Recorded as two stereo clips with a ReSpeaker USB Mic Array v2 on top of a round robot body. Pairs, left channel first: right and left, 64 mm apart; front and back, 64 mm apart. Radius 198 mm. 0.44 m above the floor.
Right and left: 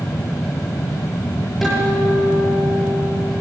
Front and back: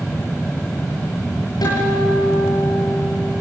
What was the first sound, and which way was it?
A guitar, straight ahead.